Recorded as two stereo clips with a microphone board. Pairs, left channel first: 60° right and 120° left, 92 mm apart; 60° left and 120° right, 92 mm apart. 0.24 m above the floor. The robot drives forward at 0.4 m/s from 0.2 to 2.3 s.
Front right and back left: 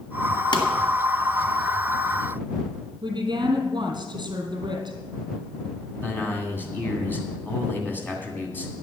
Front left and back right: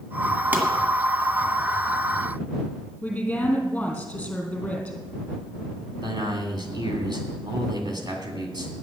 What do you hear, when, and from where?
0.5 s a pop: 55° right, 2.0 m
3.0 s a woman speaking: 135° left, 3 m
6.0 s a man speaking: 120° right, 2.5 m